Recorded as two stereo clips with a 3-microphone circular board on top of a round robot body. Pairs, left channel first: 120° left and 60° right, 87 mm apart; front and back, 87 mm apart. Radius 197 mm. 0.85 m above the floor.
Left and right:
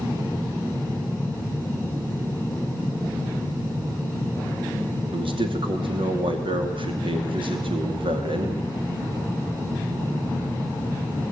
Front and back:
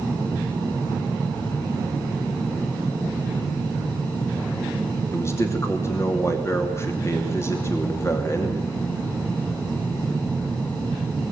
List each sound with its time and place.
5.1 s a man speaking: 55° right, 2.5 m